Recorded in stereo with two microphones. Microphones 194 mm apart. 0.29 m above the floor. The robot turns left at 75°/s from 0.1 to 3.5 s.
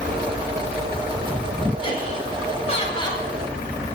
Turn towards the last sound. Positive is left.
turn(degrees=5)